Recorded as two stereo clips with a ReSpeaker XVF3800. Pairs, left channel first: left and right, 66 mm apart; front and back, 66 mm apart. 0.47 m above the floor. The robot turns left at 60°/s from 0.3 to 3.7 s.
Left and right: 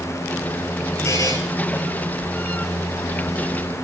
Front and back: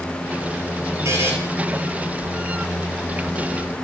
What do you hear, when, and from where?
1.1 s a buzzer: 135° left, 1.7 m; by 1.3 s 120° left, 1.7 m